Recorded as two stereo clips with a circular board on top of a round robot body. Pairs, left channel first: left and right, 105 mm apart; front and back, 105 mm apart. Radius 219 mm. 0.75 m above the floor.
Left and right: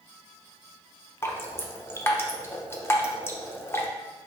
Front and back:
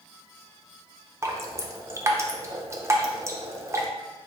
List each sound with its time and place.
1.2 s dripping: 140° left, 0.9 m